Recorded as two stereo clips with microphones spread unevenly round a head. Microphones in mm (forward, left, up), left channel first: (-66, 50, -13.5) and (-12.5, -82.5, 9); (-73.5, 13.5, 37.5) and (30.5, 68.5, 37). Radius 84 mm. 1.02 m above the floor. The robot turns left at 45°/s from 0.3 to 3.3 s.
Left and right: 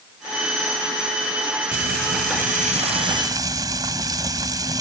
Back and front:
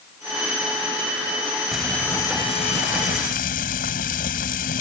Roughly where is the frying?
Ahead right.